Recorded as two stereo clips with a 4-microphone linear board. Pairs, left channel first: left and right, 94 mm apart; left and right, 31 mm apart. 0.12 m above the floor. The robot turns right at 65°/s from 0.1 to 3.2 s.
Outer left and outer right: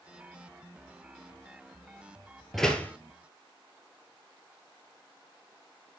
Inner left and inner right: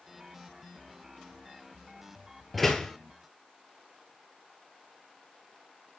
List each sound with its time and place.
2.5 s a door slam: centre (ahead or behind), 1.5 m; by 2.9 s 25° left (ahead or behind), 1.5 m